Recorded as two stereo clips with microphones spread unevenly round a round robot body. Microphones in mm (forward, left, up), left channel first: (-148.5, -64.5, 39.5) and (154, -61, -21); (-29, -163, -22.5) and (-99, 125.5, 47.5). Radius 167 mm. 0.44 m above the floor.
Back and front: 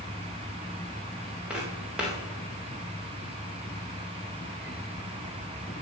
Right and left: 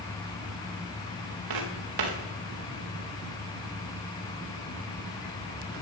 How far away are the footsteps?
About 3.5 m.